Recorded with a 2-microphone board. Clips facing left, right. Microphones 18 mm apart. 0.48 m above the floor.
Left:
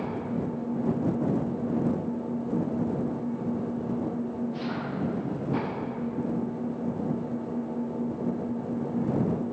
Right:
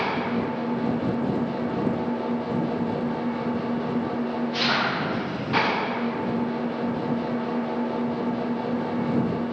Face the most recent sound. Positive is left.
turn(degrees=-90)